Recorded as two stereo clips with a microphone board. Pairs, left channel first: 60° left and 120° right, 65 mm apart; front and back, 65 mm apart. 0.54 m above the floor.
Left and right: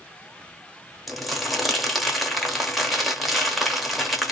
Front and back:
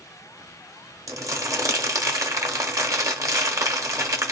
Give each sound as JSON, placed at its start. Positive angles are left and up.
{"t": 1.1, "sound": "crumpling", "azimuth_deg": 150, "distance_m": 0.9}